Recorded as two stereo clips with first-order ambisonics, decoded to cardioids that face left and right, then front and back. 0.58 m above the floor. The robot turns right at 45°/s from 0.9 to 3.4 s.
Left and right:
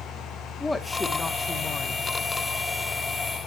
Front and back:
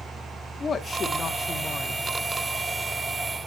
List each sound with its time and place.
0.6 s a woman speaking: 20° left, 1.0 m; by 2.1 s 75° left, 1.0 m